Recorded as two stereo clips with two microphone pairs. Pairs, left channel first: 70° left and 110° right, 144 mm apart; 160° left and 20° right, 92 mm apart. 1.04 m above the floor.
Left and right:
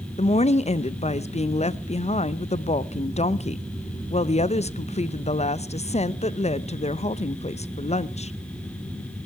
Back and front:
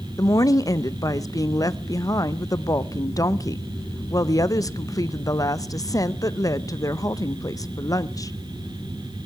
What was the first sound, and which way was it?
A woman speaking, 105° left.